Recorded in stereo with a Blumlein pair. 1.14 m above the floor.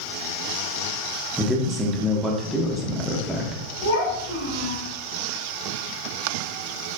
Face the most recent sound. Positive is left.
turn(degrees=65)